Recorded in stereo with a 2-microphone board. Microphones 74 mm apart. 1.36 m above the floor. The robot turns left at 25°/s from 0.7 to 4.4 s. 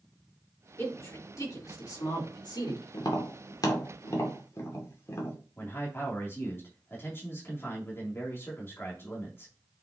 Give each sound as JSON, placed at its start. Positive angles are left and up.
{"t": 0.8, "sound": "a man speaking", "side_deg": 35, "distance_m": 3.5}
{"t": 2.9, "sound": "tapping", "side_deg": 70, "distance_m": 2.0}
{"t": 5.6, "sound": "a man speaking", "side_deg": 30, "distance_m": 3.0}